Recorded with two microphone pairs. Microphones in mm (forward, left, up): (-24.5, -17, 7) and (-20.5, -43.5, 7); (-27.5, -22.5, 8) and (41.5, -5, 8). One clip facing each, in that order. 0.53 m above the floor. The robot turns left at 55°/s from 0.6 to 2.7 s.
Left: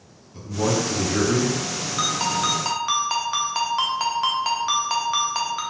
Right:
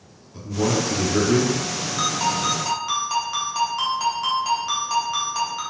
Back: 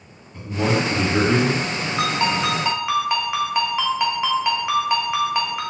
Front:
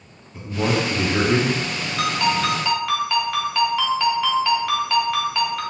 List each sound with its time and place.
0.3 s a man speaking: 55° right, 1.0 m; by 1.5 s 110° right, 1.0 m
2.0 s a ringtone: straight behind, 0.7 m; by 5.6 s 140° left, 0.7 m